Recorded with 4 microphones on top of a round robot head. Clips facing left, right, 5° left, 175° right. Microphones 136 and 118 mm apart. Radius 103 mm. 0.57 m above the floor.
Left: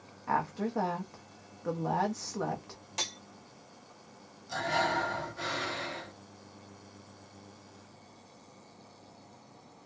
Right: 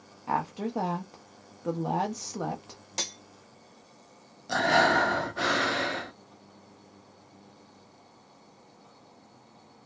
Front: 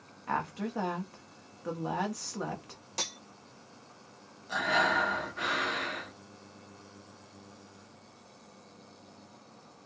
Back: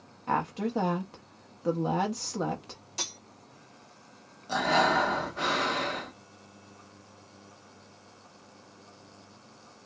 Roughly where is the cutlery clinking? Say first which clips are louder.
Right 2 dB, front 2 dB; ahead right.